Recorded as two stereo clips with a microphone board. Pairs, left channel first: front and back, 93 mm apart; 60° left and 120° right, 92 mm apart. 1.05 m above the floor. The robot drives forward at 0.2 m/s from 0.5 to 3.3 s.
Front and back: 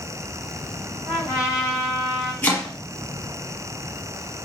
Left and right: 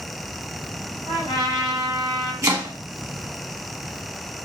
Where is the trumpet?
115° right, 3.5 m; by 2.3 s 120° right, 3.5 m.